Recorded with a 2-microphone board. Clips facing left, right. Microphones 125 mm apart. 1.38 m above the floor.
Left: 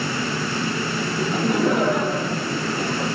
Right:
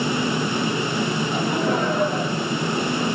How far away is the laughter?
About 6.5 m.